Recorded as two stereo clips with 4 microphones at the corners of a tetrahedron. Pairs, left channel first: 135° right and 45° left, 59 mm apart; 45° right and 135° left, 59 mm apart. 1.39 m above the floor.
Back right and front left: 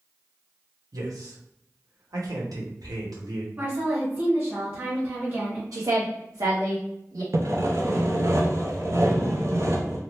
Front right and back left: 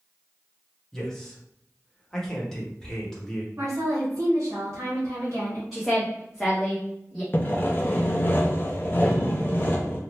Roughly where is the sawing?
Ahead.